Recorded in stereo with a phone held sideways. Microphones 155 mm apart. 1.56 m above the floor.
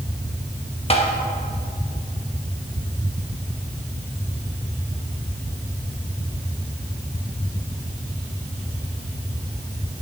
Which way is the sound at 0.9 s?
40° left (ahead or behind).